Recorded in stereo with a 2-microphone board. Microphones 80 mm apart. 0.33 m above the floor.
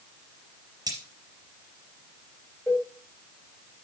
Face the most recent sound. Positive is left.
turn(degrees=15)  # may be behind; listen again after turning